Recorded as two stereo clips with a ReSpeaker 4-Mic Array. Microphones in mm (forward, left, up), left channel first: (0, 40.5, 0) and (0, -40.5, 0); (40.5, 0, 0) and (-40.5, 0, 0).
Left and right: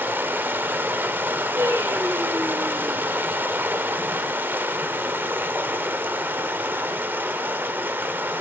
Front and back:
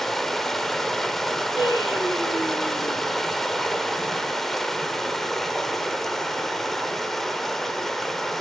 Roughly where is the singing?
Ahead right.